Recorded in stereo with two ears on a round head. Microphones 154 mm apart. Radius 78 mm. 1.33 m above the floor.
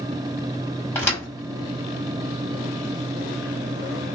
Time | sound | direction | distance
0.9 | a thud | 15° left (ahead or behind) | 1.0 m